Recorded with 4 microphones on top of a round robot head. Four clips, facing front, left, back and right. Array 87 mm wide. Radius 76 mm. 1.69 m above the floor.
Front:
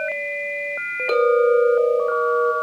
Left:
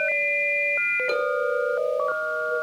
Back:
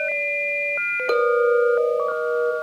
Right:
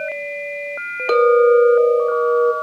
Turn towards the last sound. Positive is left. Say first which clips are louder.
# right 15 dB, front 2 dB
turn(degrees=-110)